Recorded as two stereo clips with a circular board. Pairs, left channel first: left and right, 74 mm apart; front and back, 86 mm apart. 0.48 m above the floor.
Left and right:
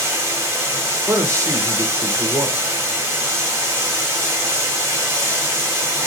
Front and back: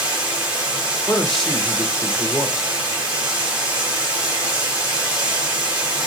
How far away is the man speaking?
About 0.9 m.